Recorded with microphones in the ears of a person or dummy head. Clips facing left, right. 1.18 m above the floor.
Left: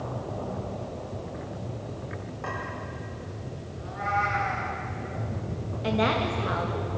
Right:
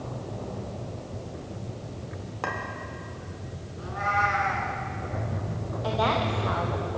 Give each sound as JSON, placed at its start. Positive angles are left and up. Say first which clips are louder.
{"t": 2.4, "sound": "a clink", "louder": "right 3 dB", "side_deg": -85, "distance_m": 2.5}
{"t": 3.8, "sound": "a cat meowing", "louder": "right 1 dB", "side_deg": -55, "distance_m": 2.5}
{"t": 5.8, "sound": "a woman speaking", "louder": "left 1 dB", "side_deg": 30, "distance_m": 1.5}